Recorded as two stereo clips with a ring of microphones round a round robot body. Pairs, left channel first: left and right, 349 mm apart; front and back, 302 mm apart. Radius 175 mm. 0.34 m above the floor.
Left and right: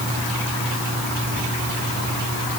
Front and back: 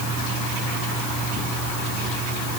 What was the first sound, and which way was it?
Only background noise.